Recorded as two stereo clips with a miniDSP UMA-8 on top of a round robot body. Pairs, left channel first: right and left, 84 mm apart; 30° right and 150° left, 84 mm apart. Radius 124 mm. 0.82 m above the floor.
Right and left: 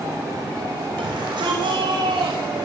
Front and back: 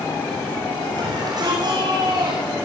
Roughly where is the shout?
Left.